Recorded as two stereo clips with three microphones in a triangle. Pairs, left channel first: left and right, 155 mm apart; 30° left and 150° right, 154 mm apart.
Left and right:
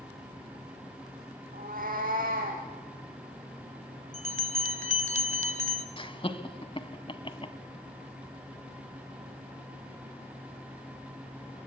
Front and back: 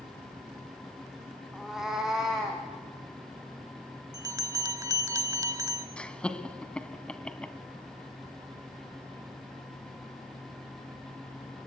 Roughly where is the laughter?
Left.